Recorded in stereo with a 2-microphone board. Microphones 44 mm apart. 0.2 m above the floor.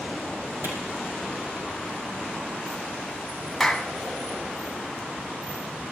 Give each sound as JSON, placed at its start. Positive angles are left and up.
{"t": 0.6, "sound": "a clap", "side_deg": -75, "distance_m": 5.0}
{"t": 3.6, "sound": "a clap", "side_deg": 5, "distance_m": 1.1}